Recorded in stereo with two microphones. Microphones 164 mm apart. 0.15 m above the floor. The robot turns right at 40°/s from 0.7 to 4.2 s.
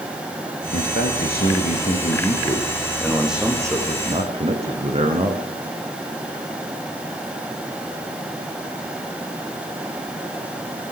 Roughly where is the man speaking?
Left.